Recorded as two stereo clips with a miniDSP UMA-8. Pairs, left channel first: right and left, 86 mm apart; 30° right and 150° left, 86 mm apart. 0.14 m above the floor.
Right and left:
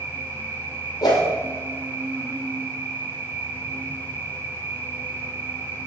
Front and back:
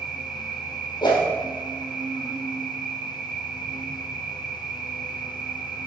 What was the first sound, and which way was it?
An insect, 75° left.